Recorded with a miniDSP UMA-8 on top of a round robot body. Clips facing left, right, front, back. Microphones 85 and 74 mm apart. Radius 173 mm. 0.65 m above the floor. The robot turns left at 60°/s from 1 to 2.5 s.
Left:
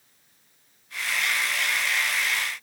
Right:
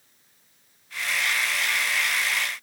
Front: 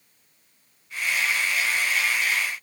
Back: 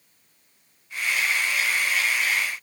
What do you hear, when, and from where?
Only background noise.